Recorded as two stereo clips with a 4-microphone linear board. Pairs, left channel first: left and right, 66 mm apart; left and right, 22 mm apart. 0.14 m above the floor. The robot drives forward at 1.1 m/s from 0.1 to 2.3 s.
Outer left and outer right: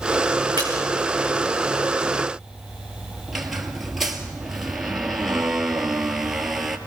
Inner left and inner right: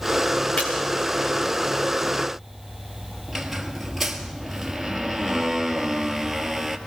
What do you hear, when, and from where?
0.6 s a splash: 80° left, 5.5 m
3.3 s a squeak: 5° right (ahead or behind), 2.0 m